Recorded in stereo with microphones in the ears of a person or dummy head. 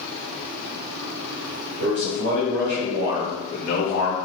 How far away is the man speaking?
About 1.8 m.